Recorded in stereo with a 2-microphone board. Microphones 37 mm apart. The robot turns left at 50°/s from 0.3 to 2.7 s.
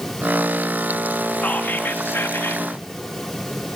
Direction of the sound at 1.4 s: 140° left.